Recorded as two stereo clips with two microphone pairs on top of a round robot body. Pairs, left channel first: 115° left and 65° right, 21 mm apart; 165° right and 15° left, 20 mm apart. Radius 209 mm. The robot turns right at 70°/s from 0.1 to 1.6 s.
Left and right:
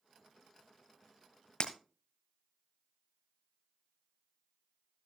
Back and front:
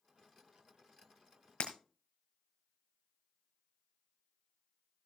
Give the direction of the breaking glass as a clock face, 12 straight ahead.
7 o'clock.